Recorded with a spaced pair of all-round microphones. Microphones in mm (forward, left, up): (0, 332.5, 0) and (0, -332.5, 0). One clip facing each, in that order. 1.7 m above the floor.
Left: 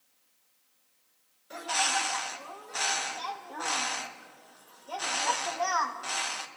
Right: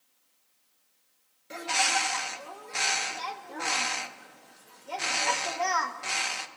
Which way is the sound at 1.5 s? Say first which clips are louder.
Right 2 dB; 55° right (ahead or behind).